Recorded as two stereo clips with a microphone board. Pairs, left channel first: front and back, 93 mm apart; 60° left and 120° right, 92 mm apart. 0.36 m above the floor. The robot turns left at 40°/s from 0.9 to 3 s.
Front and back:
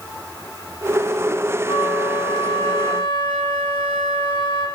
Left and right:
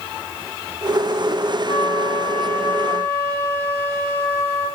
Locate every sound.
1.6 s a flute: 35° left, 1.3 m; by 4.7 s 20° right, 1.3 m